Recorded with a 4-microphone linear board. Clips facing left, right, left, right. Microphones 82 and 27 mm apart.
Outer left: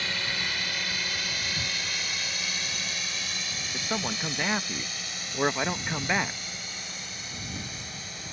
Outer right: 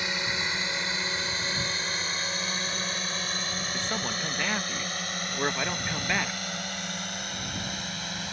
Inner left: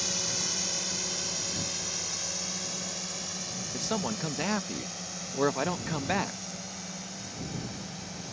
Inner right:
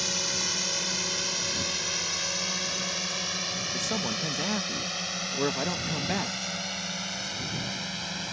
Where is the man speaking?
15° left (ahead or behind).